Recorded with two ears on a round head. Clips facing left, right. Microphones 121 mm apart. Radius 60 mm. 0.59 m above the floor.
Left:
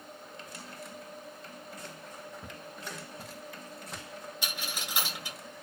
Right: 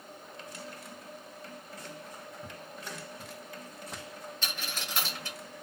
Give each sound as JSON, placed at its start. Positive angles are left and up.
{"t": 2.4, "sound": "footsteps", "side_deg": 60, "distance_m": 1.0}
{"t": 4.4, "sound": "a dropped coin", "side_deg": 10, "distance_m": 0.9}